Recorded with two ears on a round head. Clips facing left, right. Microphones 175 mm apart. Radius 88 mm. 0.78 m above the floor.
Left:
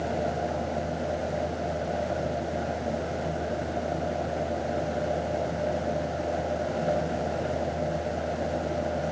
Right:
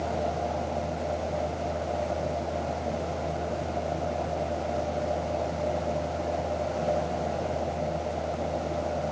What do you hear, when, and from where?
Only background noise.